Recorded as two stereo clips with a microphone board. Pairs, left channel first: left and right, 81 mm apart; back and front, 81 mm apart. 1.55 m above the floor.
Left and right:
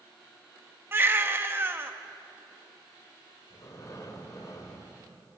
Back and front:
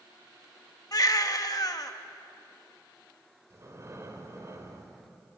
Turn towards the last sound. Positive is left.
turn(degrees=50)